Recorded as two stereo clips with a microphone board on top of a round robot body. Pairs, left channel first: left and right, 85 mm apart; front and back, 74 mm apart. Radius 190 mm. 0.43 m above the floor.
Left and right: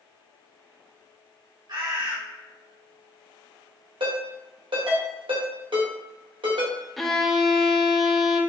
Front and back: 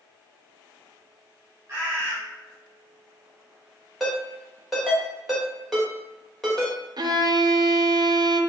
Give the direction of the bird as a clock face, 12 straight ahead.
4 o'clock.